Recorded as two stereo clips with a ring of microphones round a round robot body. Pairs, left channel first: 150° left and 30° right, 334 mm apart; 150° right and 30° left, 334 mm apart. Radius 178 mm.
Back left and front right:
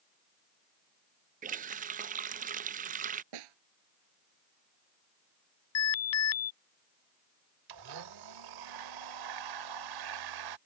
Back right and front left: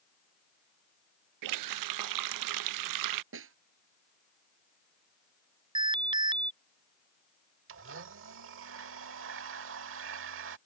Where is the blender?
20° right.